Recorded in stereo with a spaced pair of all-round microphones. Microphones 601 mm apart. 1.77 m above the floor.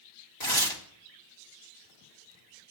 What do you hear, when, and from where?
0.4 s tearing paper: 40° left (ahead or behind), 1.7 m